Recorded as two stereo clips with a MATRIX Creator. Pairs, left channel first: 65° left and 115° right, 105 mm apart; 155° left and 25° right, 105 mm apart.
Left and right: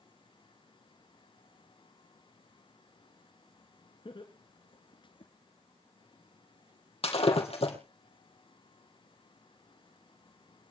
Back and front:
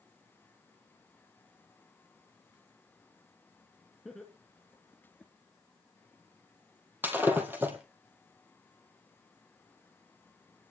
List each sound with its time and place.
4.0 s laughter: 70° left, 2.5 m
7.0 s breaking glass: 50° left, 4 m